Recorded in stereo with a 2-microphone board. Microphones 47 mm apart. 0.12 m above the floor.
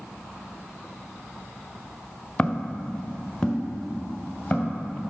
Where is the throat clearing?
No throat clearing in this recording.